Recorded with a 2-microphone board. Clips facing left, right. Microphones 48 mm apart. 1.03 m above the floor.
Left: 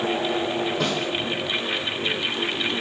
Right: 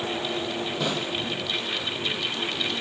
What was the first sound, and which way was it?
A snare drum, 60° left (ahead or behind).